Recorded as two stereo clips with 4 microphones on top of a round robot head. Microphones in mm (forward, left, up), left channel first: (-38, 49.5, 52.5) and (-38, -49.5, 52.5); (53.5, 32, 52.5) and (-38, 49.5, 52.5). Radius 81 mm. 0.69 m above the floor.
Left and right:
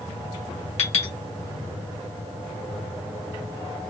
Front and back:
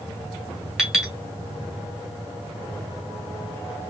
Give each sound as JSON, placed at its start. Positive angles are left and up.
{"t": 0.8, "sound": "a clink", "azimuth_deg": 85, "distance_m": 2.0}